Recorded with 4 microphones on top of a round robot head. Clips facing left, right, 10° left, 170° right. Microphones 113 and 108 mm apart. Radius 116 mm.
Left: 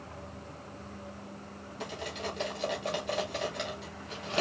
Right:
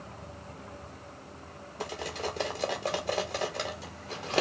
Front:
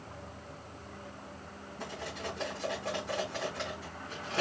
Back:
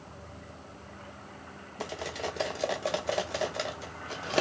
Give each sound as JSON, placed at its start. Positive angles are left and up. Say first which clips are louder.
{"t": 1.8, "sound": "cutlery clinking", "louder": "right 3 dB, back 5 dB", "azimuth_deg": -150, "distance_m": 0.7}